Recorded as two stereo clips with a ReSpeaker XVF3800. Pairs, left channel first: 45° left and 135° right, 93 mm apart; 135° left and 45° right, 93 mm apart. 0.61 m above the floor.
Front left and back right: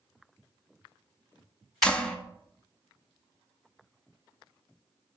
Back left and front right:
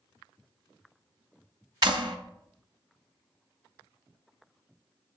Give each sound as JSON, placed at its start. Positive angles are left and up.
{"t": 1.8, "sound": "a clap", "azimuth_deg": -30, "distance_m": 0.5}